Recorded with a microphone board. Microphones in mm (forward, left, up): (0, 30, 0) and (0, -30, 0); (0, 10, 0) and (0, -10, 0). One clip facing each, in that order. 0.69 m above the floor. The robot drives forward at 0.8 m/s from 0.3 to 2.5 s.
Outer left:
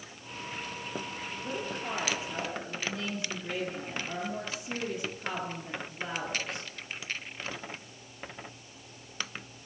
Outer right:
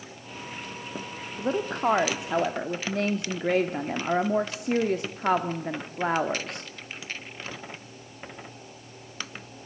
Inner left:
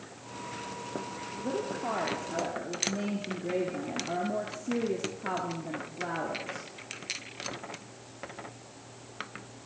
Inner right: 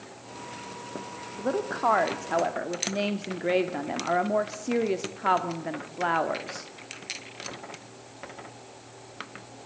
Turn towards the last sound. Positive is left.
turn(degrees=-60)  # may be behind; listen again after turning